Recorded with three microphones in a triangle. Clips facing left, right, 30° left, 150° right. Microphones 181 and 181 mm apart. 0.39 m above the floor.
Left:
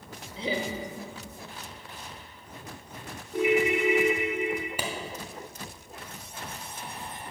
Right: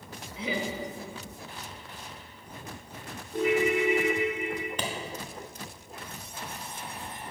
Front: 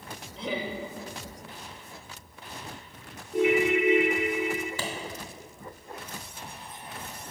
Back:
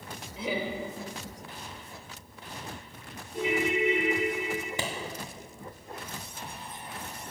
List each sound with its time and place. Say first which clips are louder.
0.4 s laughter: left 1 dB, back 1 dB; 130° left, 1.0 m
3.3 s a ringtone: left 1 dB, front 5 dB; 15° left, 1.5 m
4.8 s a clap: even, even; 160° left, 0.7 m